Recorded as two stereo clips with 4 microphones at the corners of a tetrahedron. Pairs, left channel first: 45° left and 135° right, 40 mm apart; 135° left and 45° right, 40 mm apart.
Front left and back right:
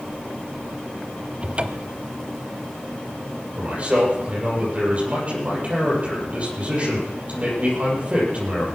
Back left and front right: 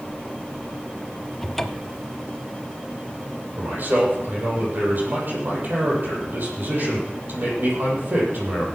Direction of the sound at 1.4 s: 150° right.